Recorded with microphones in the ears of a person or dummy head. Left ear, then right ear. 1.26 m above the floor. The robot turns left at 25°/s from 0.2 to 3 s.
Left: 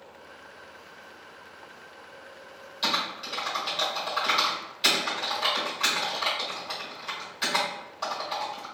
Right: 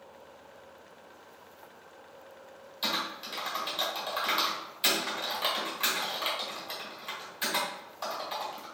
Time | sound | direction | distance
2.8 | typing on a keyboard | centre (ahead or behind) | 1.5 m